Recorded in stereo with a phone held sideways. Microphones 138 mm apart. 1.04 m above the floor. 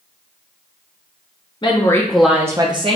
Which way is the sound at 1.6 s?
35° left (ahead or behind).